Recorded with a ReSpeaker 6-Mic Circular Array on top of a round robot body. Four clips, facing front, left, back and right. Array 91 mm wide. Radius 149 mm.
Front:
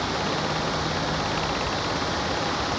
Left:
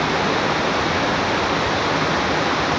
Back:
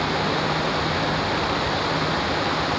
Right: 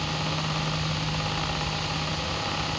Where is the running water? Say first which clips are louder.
Left 11 dB, back 3 dB; 105° left.